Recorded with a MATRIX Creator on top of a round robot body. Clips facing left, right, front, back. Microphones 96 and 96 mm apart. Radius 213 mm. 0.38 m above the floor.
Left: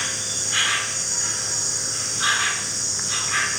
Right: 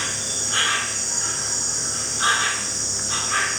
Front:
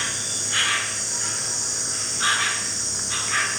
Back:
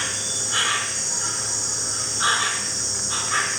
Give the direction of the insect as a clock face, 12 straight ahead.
4 o'clock.